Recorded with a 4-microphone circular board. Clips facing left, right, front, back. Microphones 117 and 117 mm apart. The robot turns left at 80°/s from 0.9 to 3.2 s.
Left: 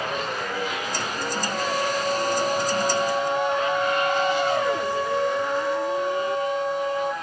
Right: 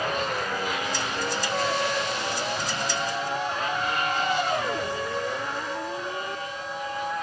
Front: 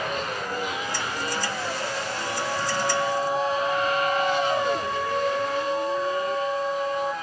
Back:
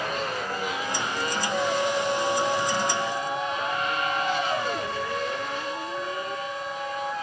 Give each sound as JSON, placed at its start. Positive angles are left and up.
{"t": 1.5, "sound": "a trumpet", "azimuth_deg": -170}